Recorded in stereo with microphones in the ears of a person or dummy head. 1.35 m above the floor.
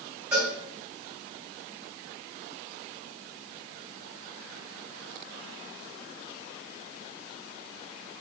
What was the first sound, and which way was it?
A cowbell, 10° right (ahead or behind).